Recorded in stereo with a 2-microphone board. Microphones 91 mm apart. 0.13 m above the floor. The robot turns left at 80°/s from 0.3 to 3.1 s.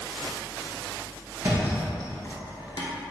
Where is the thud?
30° right (ahead or behind), 1.0 m; by 2.9 s 55° left (ahead or behind), 1.0 m.